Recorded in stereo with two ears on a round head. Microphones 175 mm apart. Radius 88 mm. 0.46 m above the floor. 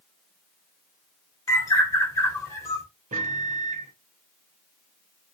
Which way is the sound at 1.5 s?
15° left (ahead or behind).